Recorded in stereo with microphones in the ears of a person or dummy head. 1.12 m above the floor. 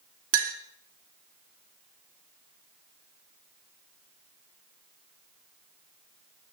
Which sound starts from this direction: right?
A clink, at 0.3 s.